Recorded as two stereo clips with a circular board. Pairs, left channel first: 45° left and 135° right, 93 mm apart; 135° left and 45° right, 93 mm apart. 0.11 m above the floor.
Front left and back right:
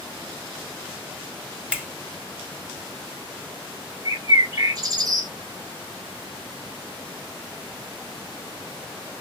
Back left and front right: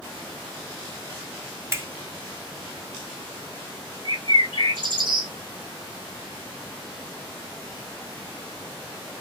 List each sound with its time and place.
1.7 s a finger snap: 75° right, 1.2 m
4.0 s a bird: 85° right, 1.3 m